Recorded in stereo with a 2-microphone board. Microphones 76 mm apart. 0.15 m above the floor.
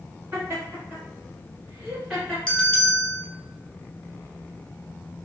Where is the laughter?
30° right (ahead or behind), 1.8 m; by 2.4 s centre (ahead or behind), 2 m.